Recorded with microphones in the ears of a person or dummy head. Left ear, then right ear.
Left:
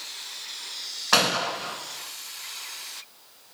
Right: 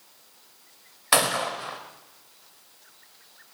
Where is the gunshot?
50° right (ahead or behind), 1.2 m.